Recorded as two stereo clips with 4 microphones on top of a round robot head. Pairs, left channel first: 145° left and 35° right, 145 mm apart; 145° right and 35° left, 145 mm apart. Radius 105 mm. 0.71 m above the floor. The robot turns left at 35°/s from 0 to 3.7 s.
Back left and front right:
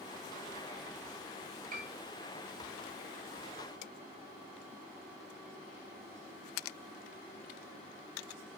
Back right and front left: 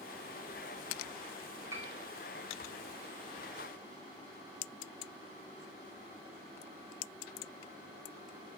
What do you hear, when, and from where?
1.7 s a piano: 35° right, 2 m; by 1.9 s 40° right, 2 m